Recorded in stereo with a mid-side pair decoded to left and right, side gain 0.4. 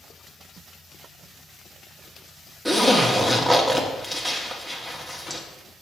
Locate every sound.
2.6 s a zipper: 10° right, 1.8 m